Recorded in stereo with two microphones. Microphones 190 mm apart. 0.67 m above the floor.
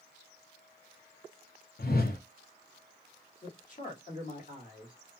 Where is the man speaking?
45° left (ahead or behind), 1.7 m.